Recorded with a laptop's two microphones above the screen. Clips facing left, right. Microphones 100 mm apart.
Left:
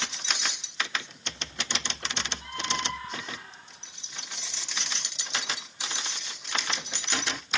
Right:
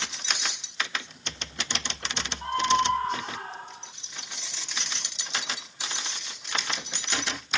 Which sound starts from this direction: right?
A scream, at 2.4 s.